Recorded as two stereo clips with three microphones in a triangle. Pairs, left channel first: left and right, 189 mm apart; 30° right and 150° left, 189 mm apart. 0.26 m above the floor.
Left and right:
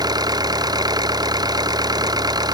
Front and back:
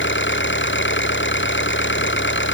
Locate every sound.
0.0 s an engine running: 20° right